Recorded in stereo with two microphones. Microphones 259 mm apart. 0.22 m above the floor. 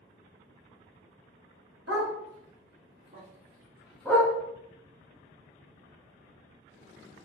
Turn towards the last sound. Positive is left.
turn(degrees=15)  # may be behind; listen again after turning